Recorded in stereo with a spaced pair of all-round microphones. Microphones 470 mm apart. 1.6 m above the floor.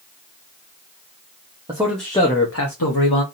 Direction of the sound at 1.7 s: 10° right (ahead or behind).